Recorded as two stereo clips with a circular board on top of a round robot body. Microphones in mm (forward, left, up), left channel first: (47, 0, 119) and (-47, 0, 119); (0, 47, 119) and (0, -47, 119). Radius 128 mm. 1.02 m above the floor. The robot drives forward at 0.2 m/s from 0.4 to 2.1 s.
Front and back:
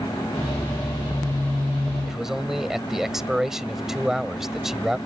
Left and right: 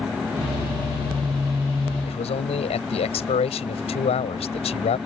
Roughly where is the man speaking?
Left.